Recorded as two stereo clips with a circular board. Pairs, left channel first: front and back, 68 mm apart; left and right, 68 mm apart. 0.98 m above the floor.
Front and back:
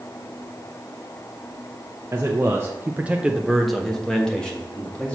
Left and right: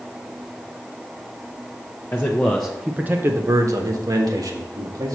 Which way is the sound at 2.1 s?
145° left.